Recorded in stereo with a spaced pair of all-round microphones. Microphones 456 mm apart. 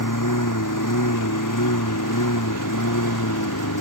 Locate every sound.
0.0 s a lawn mower: 40° left (ahead or behind)